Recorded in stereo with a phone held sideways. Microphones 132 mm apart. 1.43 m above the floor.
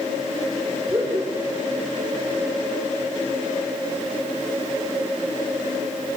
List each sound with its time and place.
0.9 s laughter: 20° right (ahead or behind), 4.5 m